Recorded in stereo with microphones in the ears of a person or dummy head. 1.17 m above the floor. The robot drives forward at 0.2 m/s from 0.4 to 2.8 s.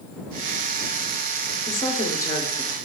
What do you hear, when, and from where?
1.7 s a woman speaking: 20° left (ahead or behind), 0.6 m